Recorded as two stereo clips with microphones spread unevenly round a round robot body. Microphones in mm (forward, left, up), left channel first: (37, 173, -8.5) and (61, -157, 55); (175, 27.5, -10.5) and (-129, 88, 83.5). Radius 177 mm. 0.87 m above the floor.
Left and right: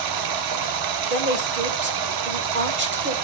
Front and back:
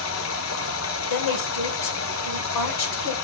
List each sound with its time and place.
0.0 s running water: 65° right, 1.2 m
1.1 s a woman speaking: 25° right, 3 m